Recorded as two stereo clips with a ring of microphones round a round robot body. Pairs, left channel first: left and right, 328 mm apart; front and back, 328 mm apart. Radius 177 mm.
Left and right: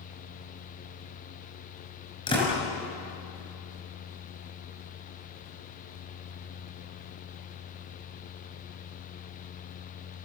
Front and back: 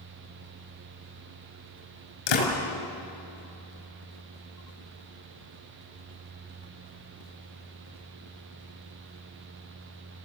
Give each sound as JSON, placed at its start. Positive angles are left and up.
{"t": 2.3, "sound": "a door slam", "azimuth_deg": 10, "distance_m": 5.5}